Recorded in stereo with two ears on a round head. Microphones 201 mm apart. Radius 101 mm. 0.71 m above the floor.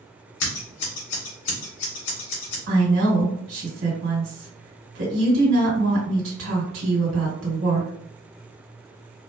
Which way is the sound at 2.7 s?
60° right (ahead or behind).